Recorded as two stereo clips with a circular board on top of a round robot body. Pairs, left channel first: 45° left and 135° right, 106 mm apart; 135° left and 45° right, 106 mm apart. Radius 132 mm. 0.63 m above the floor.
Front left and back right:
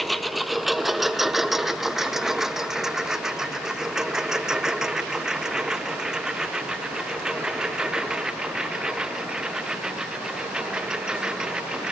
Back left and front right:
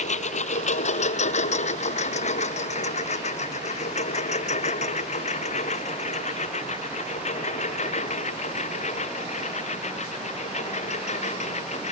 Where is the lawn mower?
135° left; by 11.9 s 140° left.